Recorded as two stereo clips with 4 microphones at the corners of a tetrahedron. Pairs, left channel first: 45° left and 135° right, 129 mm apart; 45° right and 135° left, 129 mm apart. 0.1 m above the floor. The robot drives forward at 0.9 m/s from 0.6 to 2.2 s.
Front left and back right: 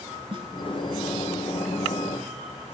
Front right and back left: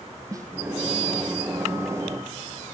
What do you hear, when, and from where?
0.3 s a snare drum: 170° right, 1.3 m